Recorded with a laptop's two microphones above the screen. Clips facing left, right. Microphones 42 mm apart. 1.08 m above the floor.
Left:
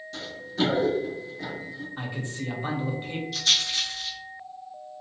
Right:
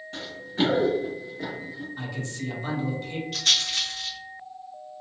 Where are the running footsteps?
35° right (ahead or behind), 1.2 m; by 1.9 s 15° right (ahead or behind), 1.4 m.